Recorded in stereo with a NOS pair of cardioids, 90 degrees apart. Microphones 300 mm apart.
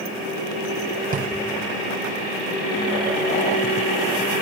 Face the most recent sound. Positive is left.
turn(degrees=-30)